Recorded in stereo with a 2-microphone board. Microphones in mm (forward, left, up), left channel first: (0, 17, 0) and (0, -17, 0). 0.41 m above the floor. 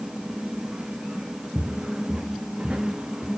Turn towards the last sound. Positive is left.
turn(degrees=-35)  # may be behind; listen again after turning